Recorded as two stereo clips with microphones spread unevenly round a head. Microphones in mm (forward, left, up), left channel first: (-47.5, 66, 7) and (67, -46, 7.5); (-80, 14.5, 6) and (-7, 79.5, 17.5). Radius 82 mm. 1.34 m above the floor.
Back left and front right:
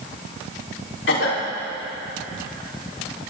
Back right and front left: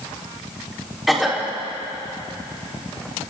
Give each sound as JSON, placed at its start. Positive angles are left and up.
{"t": 1.1, "sound": "a cough", "azimuth_deg": 130, "distance_m": 3.5}